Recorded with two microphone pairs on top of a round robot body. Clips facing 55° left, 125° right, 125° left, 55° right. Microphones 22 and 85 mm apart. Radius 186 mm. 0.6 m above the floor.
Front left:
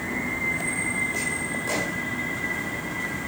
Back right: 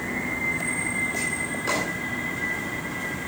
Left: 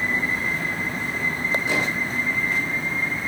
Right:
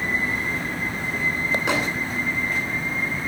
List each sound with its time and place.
1.7 s a microwave: 65° right, 8.5 m